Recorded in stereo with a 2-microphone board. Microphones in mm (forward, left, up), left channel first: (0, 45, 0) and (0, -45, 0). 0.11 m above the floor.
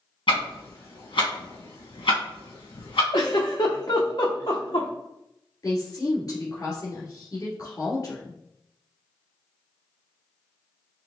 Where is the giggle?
60° left (ahead or behind), 1.5 m.